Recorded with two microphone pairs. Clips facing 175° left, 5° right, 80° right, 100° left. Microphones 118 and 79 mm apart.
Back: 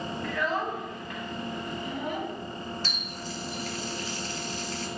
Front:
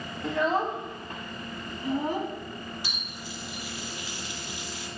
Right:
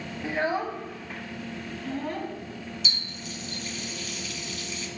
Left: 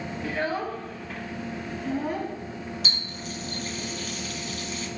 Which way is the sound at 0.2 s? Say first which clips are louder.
Front 5 dB, right 2 dB; 45° right.